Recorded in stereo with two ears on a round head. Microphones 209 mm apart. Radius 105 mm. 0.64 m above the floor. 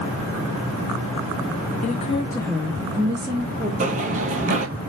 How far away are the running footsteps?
About 0.7 m.